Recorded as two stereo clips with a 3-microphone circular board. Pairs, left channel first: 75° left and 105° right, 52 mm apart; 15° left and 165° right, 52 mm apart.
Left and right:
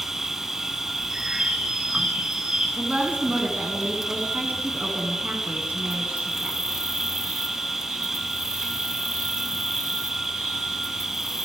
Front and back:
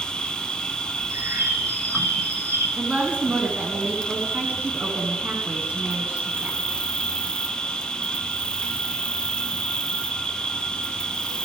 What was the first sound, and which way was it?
An insect, 30° right.